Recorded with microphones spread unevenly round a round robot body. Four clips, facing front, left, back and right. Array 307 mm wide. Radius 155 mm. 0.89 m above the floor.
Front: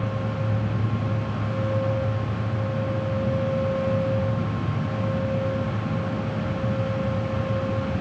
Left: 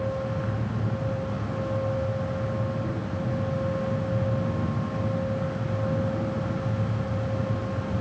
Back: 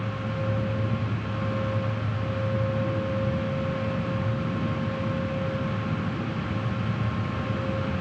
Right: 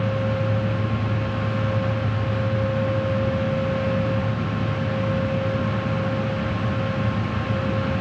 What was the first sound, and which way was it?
Only background noise.